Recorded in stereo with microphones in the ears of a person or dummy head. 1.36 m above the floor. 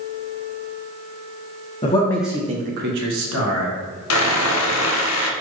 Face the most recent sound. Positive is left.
turn(degrees=80)